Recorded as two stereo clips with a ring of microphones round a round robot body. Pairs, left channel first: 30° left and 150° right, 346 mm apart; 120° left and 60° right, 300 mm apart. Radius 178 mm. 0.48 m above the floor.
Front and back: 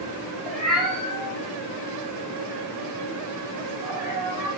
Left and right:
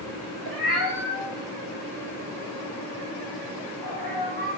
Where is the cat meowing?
60° right, 3.5 m; by 4.5 s 70° right, 7.5 m.